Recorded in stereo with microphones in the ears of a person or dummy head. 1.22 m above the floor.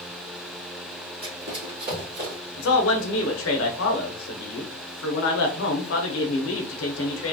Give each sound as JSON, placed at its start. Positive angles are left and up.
{"t": 1.2, "sound": "running footsteps", "side_deg": -25, "distance_m": 1.8}
{"t": 2.6, "sound": "a man speaking", "side_deg": 85, "distance_m": 0.7}